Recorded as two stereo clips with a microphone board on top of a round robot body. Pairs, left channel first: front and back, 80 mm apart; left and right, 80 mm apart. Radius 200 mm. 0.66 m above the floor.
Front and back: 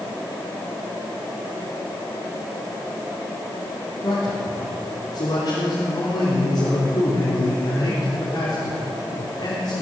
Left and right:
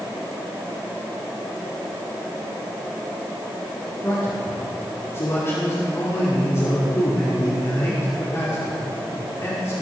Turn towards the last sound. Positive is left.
turn(degrees=40)